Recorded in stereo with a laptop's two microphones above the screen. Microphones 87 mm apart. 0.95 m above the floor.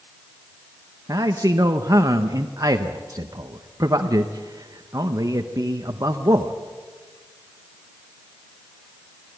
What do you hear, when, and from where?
1.1 s a man speaking: 45° right (ahead or behind), 1.0 m